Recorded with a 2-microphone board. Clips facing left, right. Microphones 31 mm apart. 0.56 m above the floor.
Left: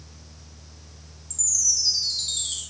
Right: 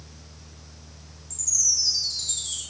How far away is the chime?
About 1.3 m.